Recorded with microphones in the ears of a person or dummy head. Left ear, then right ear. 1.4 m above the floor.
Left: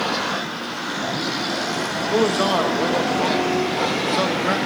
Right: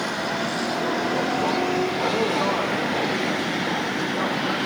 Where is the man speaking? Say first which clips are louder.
Left 3 dB; 65° left (ahead or behind), 1.3 m.